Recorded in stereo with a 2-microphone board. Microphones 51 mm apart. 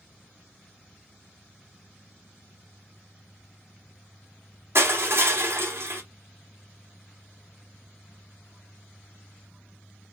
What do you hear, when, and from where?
4.8 s crushing: 55° right (ahead or behind), 1.9 m